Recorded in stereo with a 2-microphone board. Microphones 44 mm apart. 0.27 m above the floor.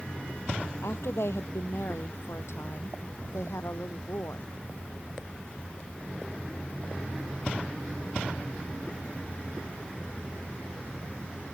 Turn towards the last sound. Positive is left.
turn(degrees=85)